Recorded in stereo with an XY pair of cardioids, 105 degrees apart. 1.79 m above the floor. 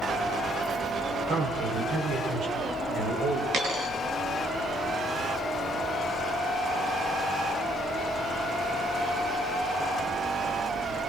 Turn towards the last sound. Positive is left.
turn(degrees=-60)